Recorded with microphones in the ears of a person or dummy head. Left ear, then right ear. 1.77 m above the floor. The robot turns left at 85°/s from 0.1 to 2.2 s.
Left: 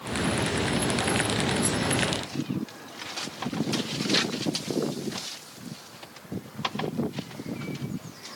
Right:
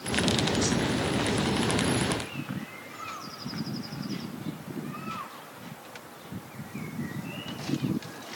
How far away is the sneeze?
No sneeze in this recording.